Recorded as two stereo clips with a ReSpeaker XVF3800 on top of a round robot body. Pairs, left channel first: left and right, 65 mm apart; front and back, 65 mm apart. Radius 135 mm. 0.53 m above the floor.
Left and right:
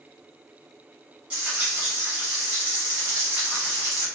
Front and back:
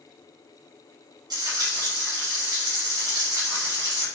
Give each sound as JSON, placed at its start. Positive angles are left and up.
{"t": 1.3, "sound": "frying", "azimuth_deg": -165, "distance_m": 1.1}